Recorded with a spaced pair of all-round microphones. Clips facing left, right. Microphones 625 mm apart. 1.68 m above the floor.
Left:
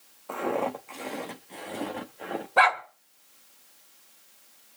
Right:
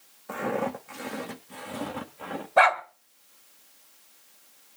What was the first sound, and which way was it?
Footsteps, 45° right (ahead or behind).